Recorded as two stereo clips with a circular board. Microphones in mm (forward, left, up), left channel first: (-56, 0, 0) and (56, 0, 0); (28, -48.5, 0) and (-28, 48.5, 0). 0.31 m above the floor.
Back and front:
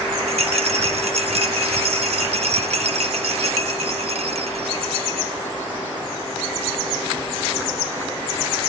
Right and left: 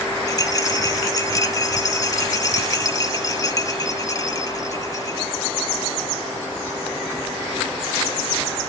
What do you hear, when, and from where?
0.3 s a rattle: 5° right, 0.5 m